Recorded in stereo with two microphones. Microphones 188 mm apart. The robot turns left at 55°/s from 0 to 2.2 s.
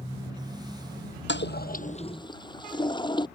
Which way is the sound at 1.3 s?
70° left (ahead or behind).